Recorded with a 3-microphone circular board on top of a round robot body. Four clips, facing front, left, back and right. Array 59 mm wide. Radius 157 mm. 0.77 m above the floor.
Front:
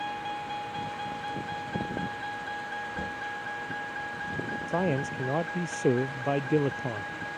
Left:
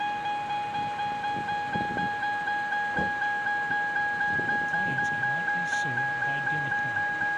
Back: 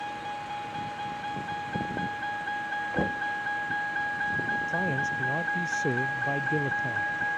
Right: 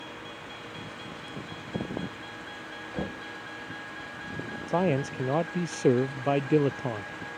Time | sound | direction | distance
0.0 | a vehicle | 90° left | ?
2.9 | knocking | straight behind | ?
4.7 | a man speaking | 65° right | ?